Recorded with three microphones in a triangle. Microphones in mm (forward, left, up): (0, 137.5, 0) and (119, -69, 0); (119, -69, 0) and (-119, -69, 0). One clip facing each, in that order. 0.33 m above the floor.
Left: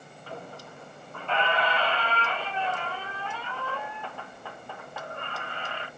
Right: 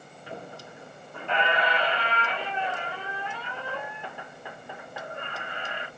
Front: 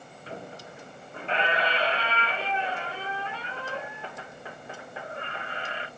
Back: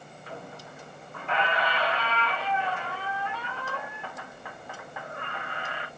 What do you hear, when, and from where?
0.3 s a squeak: 5° right, 0.9 m